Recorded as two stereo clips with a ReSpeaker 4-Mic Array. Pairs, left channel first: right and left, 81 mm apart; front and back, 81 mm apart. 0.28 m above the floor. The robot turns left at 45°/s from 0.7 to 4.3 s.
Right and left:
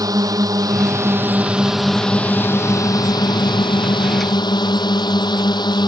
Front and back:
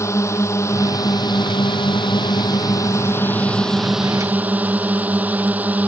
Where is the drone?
50° left; by 5.9 s 110° right.